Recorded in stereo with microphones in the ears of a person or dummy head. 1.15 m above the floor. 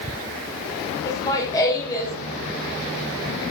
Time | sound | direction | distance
1.1 | laughter | 20° left (ahead or behind) | 1.6 m